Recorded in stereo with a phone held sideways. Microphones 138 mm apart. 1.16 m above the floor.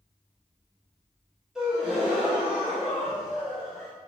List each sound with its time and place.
1.6 s a gasp: 5° right (ahead or behind), 1.1 m